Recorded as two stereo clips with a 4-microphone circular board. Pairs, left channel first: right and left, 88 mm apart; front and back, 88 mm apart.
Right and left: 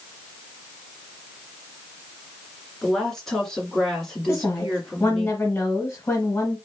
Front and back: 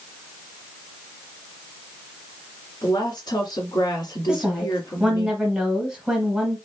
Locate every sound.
2.8 s a woman speaking: 5° right, 2.5 m
4.3 s a woman speaking: 100° right, 1.6 m